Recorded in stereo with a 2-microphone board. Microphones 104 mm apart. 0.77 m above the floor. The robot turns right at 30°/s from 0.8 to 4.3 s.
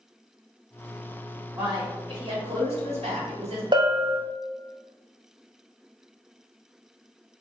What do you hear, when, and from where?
1.6 s a man speaking: 140° right, 1.5 m; by 3.6 s 80° right, 1.5 m
3.7 s a bell: 45° right (ahead or behind), 0.8 m; by 4.2 s 40° right (ahead or behind), 0.8 m